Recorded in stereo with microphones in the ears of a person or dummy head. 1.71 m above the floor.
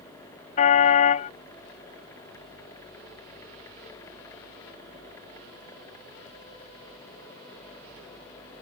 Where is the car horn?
45° left (ahead or behind).